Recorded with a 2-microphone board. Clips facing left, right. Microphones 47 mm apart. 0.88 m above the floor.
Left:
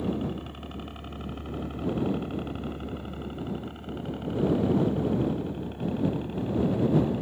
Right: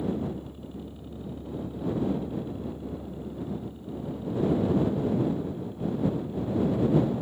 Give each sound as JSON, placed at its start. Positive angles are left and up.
{"t": 0.0, "sound": "a helicopter", "side_deg": 70}